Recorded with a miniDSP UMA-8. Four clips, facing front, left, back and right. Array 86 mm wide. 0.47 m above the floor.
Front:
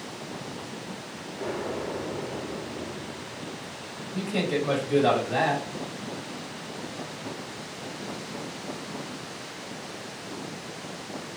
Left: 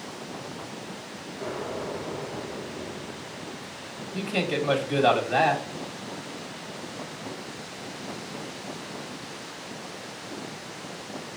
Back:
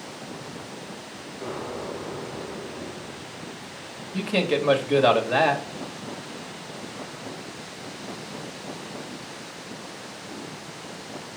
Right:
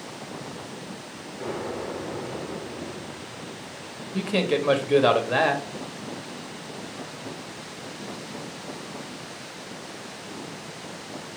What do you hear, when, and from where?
1.4 s an explosion: 60° right, 4 m
4.1 s a man speaking: 135° right, 1.8 m